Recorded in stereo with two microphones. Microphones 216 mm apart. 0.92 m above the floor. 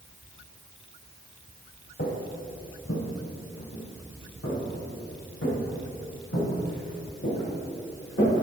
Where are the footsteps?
55° left (ahead or behind), 1.8 m; by 8.4 s 75° left (ahead or behind), 7.5 m.